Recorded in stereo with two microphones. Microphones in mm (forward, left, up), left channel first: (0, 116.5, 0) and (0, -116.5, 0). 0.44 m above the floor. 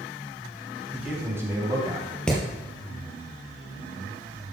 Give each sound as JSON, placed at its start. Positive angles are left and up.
{"t": 0.9, "sound": "a man speaking", "side_deg": -5, "distance_m": 4.0}
{"t": 2.3, "sound": "hammering", "side_deg": 5, "distance_m": 3.0}